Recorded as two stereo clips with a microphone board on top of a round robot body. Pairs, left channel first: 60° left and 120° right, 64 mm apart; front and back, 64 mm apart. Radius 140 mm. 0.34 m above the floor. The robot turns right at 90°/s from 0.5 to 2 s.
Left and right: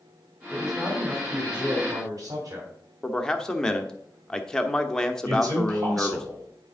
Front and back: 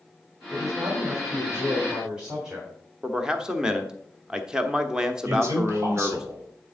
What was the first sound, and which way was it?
A man speaking, 120° left.